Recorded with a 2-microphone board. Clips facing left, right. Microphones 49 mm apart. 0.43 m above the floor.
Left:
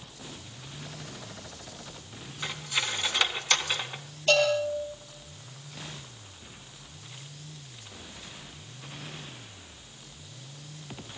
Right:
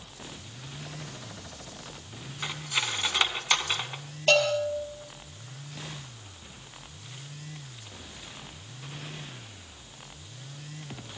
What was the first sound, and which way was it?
Cutlery clinking, 10° right (ahead or behind).